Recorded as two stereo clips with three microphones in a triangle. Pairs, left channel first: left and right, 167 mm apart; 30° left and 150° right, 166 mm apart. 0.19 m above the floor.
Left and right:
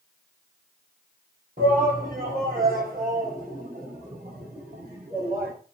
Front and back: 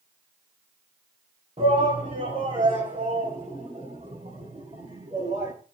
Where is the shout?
105° right, 7.5 m; by 5.5 s 115° right, 10.5 m.